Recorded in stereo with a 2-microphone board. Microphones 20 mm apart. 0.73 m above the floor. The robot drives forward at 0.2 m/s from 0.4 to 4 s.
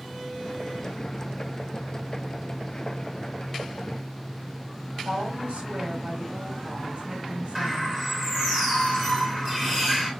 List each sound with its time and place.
5.0 s a woman speaking: 75° right (ahead or behind), 2.5 m
7.5 s a bird: 20° right (ahead or behind), 2 m